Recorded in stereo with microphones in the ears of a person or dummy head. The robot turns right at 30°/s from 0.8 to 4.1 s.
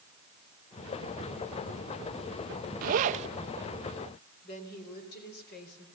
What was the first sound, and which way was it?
A zipper, 50° right (ahead or behind).